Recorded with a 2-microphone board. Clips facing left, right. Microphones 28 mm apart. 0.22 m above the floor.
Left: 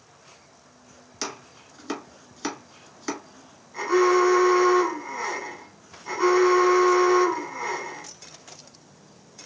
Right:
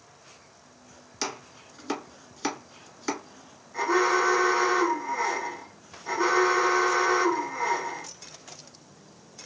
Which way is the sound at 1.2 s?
Centre (ahead or behind).